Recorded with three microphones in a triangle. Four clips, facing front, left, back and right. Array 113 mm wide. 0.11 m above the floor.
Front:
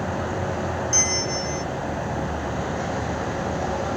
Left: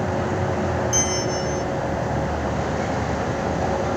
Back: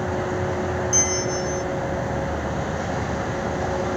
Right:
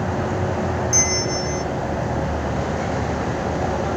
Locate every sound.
0.9 s a bell: 10° left